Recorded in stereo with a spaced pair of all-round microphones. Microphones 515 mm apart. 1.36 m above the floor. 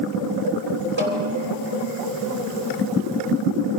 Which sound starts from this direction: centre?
A snare drum, at 1.0 s.